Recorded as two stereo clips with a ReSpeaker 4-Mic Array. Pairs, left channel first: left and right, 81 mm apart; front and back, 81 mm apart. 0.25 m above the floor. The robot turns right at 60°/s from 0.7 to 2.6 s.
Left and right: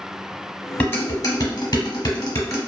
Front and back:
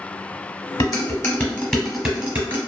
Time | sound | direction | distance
0.8 | dishes clattering | 25° left | 0.9 m